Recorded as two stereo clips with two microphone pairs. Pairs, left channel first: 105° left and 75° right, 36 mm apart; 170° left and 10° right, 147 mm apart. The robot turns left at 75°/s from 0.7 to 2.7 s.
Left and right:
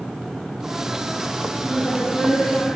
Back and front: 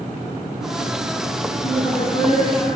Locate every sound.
1.6 s a woman speaking: 175° left, 4.5 m; by 2.7 s 95° left, 4.5 m